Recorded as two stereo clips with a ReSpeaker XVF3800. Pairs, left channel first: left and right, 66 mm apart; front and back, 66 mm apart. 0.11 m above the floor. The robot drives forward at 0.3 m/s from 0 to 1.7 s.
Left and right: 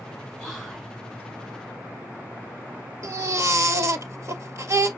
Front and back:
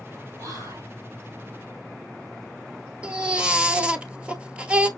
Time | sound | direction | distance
0.4 | whispering | straight behind | 3.5 m
3.0 | a baby crying | 110° right | 1.1 m